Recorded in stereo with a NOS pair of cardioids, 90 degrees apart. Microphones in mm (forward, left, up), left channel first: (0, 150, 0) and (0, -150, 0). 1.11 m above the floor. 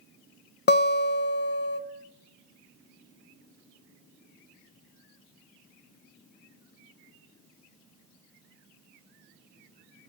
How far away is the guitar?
About 0.6 m.